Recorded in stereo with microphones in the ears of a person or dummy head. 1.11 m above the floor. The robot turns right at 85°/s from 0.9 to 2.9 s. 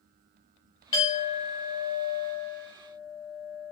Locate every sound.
0.9 s a clink: 30° left, 0.8 m; by 3.7 s 165° right, 0.8 m